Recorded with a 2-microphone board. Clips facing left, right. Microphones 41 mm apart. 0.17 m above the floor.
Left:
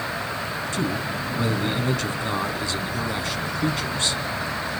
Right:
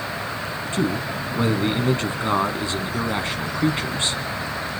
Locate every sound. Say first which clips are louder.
0.7 s a man speaking: right 4 dB; 30° right (ahead or behind), 1.3 m